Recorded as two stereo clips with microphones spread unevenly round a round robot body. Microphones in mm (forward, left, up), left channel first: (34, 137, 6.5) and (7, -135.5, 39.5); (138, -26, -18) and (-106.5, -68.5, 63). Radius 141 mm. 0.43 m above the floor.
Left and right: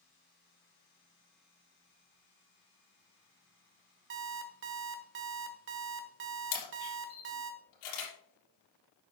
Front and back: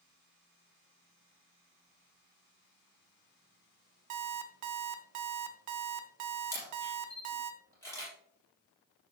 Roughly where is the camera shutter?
Left.